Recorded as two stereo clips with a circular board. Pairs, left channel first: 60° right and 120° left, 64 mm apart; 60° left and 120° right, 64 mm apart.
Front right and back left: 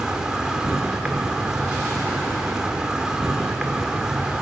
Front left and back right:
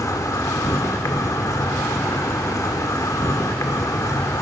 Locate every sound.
0.0 s an insect: 45° left, 1.5 m